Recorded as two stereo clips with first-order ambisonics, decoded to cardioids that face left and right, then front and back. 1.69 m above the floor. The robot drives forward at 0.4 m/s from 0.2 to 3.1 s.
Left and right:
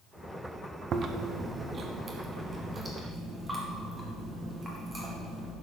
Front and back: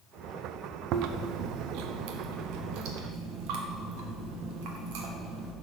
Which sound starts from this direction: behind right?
Chewing, at 0.9 s.